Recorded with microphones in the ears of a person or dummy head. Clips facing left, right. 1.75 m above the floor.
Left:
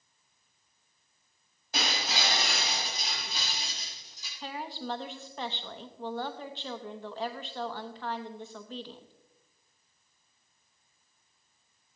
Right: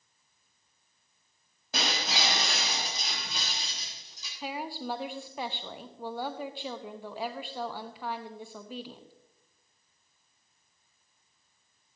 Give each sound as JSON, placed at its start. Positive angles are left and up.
{"t": 1.7, "sound": "breaking glass", "side_deg": -75, "distance_m": 6.0}
{"t": 4.4, "sound": "a woman speaking", "side_deg": -10, "distance_m": 0.9}